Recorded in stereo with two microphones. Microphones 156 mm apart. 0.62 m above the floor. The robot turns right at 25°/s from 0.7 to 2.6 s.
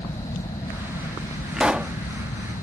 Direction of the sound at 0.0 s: 40° left.